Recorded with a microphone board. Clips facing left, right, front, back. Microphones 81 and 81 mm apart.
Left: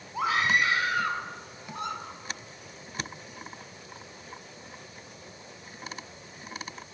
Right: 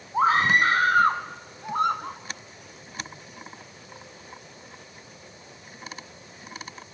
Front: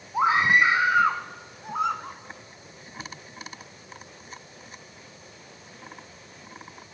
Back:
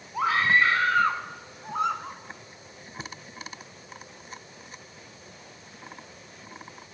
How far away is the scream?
About 1.9 m.